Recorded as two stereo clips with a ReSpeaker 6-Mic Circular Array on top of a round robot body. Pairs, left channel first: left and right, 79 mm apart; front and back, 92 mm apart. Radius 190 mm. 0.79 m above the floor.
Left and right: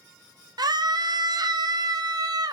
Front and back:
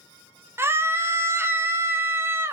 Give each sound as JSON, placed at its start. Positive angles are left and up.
{"t": 0.6, "sound": "a scream", "azimuth_deg": -120, "distance_m": 0.5}